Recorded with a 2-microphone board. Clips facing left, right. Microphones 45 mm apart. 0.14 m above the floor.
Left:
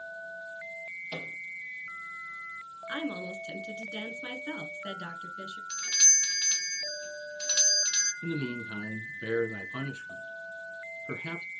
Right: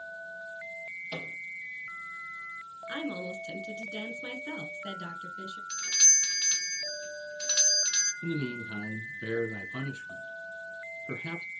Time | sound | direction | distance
1.1 | a microwave | 10° right (ahead or behind) | 3 m
2.9 | a woman speaking | 20° left (ahead or behind) | 1.7 m
5.7 | a doorbell | 5° right (ahead or behind) | 1.6 m
8.2 | a man speaking | 20° left (ahead or behind) | 1.4 m